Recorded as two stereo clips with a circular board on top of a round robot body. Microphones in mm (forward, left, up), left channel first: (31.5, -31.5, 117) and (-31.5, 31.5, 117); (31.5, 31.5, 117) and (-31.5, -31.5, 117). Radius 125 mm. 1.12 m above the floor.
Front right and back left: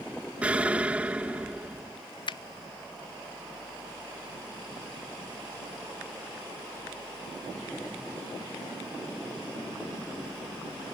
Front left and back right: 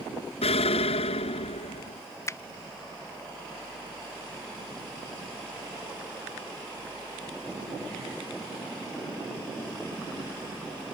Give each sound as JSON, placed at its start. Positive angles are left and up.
{"t": 0.4, "sound": "an explosion", "azimuth_deg": 60}
{"t": 2.3, "sound": "a finger snap", "azimuth_deg": -15}